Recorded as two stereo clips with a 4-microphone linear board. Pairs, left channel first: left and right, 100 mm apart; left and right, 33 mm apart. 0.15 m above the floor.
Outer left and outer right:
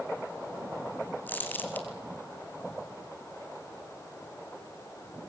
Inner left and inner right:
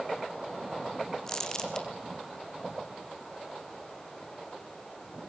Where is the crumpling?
15° left (ahead or behind), 2 m.